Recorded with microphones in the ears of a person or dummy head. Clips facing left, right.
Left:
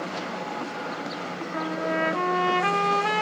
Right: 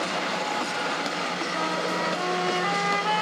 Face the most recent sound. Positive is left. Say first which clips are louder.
# left 3 dB
turn(degrees=70)  # may be behind; listen again after turning